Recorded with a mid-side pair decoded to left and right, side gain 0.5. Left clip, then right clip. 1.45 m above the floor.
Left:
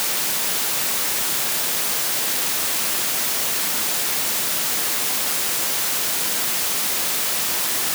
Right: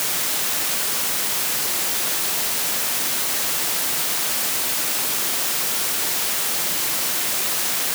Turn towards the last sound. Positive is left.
No sound to turn to.